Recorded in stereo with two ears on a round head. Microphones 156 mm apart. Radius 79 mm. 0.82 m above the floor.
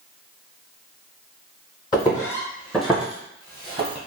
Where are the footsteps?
25° left (ahead or behind), 1.4 m; by 4.0 s 35° right (ahead or behind), 1.2 m.